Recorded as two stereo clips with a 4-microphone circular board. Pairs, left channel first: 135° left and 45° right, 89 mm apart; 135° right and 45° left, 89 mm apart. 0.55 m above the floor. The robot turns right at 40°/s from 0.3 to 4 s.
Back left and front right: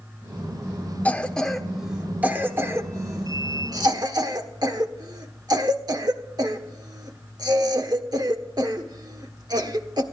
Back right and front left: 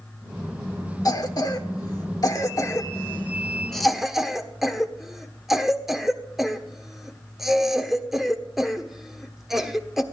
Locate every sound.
1.1 s a cough: 160° right, 1.3 m; by 10.0 s 40° right, 1.3 m